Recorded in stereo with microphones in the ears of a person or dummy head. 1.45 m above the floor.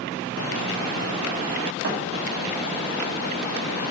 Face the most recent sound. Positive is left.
turn(degrees=-55)  # may be behind; listen again after turning